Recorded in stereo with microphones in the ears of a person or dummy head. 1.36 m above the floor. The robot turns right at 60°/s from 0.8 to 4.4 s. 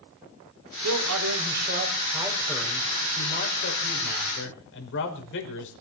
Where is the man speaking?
100° right, 5.5 m; by 5.7 s 115° left, 5.5 m.